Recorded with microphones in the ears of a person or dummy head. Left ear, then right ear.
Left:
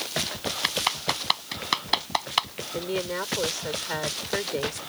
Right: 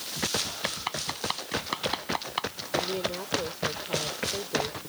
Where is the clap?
25° left (ahead or behind).